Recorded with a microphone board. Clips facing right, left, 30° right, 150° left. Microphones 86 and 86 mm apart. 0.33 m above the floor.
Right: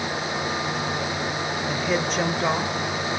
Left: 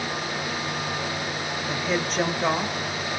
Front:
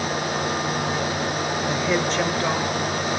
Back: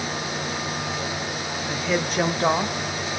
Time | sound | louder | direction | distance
1.7 | a woman speaking | right 1 dB, front 1 dB | straight ahead | 1.0 m